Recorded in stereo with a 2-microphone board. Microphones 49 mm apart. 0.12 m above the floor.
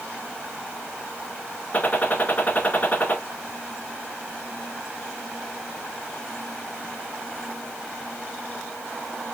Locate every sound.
1.7 s a gunshot: 35° left (ahead or behind), 1.3 m